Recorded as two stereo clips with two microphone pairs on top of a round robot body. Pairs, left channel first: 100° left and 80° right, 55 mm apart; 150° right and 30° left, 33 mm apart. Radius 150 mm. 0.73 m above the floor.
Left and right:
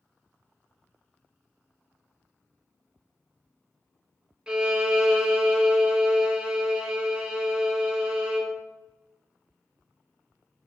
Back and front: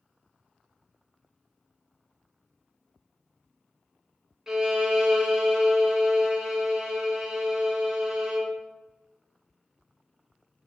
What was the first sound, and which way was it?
A violin, 25° right.